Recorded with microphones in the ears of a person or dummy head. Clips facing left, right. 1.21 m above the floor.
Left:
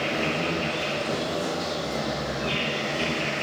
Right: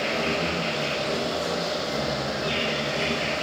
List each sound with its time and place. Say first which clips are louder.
0.0 s an insect: right 1 dB; 20° left (ahead or behind), 1.9 m